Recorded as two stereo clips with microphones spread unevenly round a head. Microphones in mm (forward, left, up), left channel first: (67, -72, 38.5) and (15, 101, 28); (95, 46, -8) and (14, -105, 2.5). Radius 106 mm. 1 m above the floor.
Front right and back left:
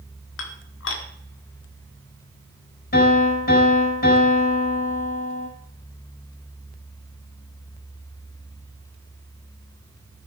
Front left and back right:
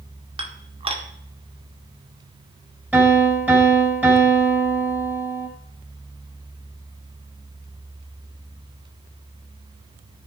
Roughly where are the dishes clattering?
Ahead right.